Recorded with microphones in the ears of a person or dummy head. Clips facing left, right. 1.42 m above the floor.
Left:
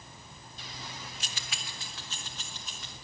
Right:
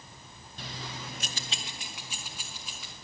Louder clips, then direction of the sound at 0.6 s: Right 5 dB; 50° right (ahead or behind).